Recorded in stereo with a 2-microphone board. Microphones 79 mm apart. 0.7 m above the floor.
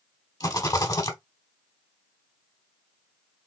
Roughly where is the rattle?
Left.